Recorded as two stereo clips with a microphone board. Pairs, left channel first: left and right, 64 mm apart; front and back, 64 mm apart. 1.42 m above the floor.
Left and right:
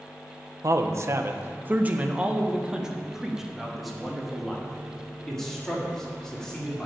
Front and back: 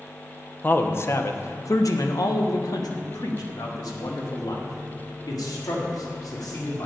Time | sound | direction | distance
0.6 | a man speaking | 60° right | 1.0 m